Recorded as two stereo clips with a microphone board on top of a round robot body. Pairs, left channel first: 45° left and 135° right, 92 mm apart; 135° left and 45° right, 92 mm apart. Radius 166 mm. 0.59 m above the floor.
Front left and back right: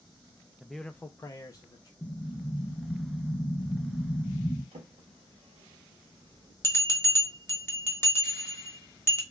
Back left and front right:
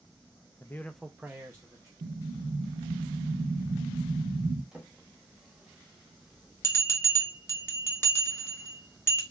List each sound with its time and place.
0.6 s a man speaking: 150° left, 0.6 m; by 1.9 s 5° left, 0.9 m
2.0 s an explosion: 35° right, 0.7 m
4.7 s a drawer: 125° right, 0.6 m
6.6 s a bell: 90° left, 1.2 m